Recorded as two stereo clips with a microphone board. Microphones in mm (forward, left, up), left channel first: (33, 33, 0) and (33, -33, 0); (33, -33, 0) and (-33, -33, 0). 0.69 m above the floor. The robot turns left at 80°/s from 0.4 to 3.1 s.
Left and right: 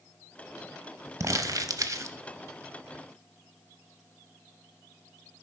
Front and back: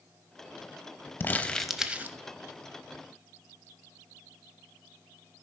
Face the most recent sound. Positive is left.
turn(degrees=155)